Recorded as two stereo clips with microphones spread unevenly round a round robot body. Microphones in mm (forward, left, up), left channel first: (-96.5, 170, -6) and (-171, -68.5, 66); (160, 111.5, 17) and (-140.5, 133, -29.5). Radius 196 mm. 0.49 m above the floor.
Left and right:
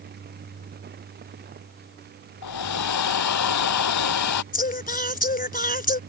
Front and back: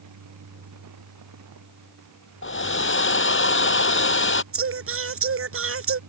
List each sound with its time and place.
2.4 s a hair dryer: 45° left
4.5 s singing: 130° left